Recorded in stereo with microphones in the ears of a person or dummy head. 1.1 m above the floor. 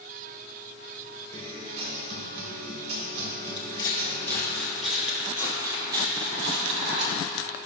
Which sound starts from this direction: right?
A guitar, at 1.3 s.